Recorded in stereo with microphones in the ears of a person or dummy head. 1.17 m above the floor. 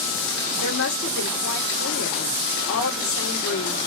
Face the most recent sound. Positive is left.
turn(degrees=45)  # may be behind; listen again after turning